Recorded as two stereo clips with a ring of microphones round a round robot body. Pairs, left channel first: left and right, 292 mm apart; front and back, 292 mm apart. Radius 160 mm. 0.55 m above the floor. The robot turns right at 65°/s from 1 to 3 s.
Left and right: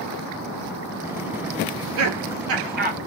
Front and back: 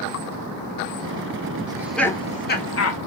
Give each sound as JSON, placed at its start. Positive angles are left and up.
{"t": 1.7, "sound": "laughter", "azimuth_deg": -110, "distance_m": 1.3}